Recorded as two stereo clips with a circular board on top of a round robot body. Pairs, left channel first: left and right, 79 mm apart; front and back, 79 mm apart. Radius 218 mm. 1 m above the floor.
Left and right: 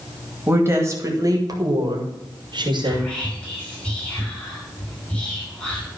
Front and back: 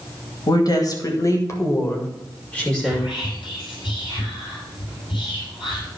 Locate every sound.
0.5 s a woman speaking: 30° right, 2.5 m; by 3.1 s 85° right, 2.5 m
2.9 s whispering: 15° left, 5 m